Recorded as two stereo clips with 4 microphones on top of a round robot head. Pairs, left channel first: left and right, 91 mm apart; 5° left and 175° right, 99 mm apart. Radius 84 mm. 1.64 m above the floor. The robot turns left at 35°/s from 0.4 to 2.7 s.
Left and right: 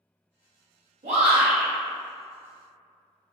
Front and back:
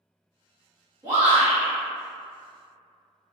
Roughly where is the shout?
Right.